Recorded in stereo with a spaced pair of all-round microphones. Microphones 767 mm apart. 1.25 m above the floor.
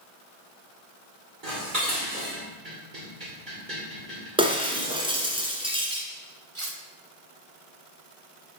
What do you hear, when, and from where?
1.4 s dishes clattering: 85° right, 3 m
4.4 s breaking glass: 5° right (ahead or behind), 1.6 m
6.5 s cutlery clinking: 40° right (ahead or behind), 1.3 m